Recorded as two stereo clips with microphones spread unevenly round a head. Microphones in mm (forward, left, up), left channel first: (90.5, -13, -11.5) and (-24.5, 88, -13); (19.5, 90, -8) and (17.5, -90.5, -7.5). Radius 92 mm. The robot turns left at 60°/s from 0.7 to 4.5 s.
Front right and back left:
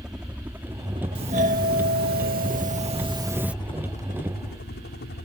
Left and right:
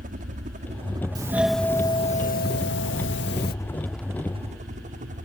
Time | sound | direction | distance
0.0 | a helicopter | 135° right | ?
1.1 | a doorbell | 160° right | ?